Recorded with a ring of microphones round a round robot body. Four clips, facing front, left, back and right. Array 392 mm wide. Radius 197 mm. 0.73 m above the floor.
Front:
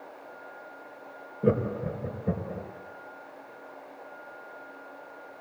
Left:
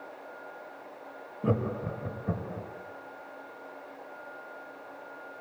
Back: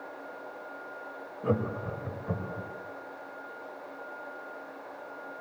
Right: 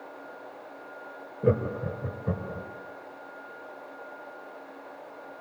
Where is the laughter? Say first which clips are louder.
Right 4 dB, front 4 dB; 45° right, 3.5 m; by 2.7 s 35° right, 4.5 m.